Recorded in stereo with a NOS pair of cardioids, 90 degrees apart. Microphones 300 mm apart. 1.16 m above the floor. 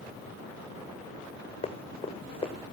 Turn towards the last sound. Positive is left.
turn(degrees=20)